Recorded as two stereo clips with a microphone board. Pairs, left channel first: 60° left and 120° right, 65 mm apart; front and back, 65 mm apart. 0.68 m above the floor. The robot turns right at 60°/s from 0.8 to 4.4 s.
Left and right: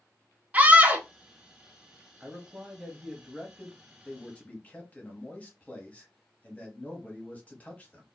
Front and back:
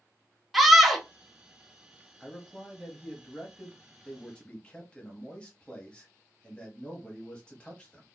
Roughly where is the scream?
Right.